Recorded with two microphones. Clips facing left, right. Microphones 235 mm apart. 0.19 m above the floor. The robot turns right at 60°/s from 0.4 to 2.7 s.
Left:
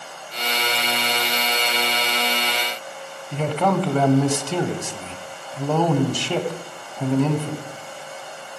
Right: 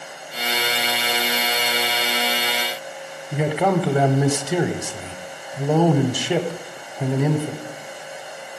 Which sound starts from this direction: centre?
A man speaking, at 3.3 s.